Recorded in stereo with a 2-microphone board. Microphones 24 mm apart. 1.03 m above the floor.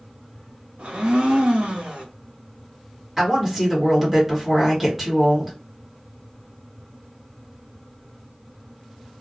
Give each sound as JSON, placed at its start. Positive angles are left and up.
{"t": 0.8, "sound": "a blender", "side_deg": -55, "distance_m": 0.9}
{"t": 3.2, "sound": "a woman speaking", "side_deg": -10, "distance_m": 1.5}